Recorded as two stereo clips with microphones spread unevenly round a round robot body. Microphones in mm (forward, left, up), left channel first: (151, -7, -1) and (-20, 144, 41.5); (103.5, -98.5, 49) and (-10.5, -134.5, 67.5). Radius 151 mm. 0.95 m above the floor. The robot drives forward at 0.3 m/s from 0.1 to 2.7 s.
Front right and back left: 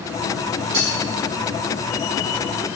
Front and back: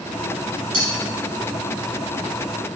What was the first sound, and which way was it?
Cutlery clinking, 175° left.